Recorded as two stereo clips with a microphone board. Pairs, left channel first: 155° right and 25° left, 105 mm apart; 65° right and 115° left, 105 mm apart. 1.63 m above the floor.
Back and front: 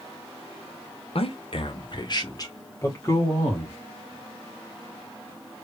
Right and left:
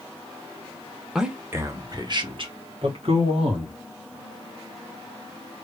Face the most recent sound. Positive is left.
turn(degrees=130)